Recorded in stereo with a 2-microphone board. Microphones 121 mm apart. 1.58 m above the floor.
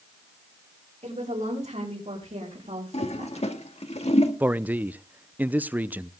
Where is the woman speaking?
80° right, 6.5 m; by 3.5 s 70° right (ahead or behind), 3 m.